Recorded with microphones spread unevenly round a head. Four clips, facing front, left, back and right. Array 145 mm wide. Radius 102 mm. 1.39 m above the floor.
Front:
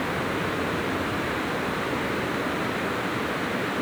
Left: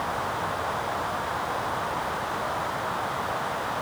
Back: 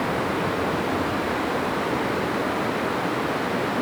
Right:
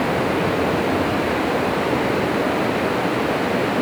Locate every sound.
0.0 s running water: 110° right